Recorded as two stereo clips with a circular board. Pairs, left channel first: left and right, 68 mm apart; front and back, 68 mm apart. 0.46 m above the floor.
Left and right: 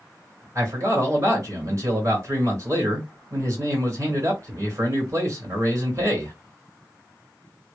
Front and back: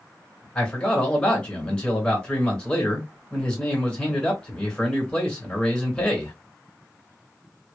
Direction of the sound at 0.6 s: 70° right.